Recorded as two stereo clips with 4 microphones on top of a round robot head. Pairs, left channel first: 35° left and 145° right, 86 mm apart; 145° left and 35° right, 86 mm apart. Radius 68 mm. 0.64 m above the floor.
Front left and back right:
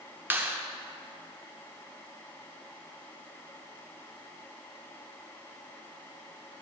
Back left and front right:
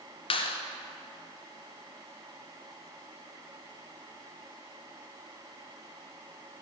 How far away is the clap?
About 1.1 m.